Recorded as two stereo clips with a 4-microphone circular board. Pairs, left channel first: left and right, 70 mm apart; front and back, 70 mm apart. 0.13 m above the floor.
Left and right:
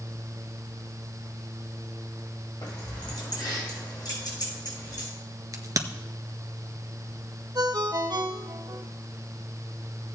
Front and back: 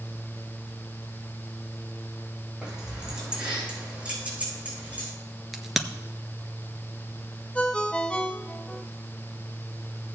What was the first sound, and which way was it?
Keys jangling, 100° left.